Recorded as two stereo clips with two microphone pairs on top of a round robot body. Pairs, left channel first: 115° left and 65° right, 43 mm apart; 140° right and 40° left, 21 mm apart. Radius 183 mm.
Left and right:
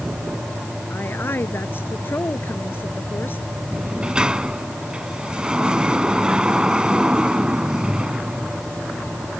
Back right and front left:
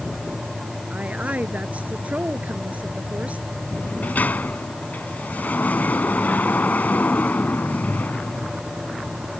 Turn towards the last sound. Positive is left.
turn(degrees=-140)